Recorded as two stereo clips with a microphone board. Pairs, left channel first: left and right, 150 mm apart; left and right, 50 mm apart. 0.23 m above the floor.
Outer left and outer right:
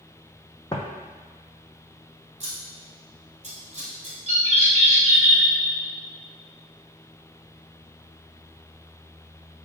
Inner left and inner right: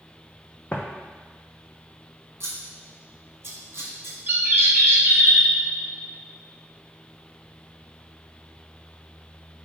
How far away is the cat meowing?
I don't hear a cat meowing.